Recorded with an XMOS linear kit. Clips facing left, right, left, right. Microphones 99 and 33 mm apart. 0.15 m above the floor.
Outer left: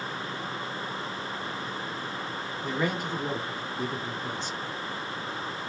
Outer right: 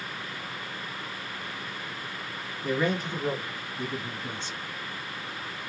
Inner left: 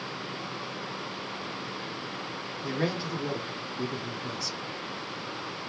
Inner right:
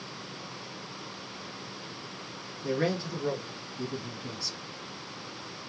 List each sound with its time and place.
2.6 s a man speaking: 20° left (ahead or behind), 1.7 m; by 4.6 s 25° right (ahead or behind), 2 m